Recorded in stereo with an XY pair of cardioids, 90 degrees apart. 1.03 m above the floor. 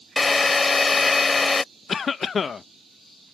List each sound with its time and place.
0.2 s a drill: 30° left
1.9 s a cough: 50° left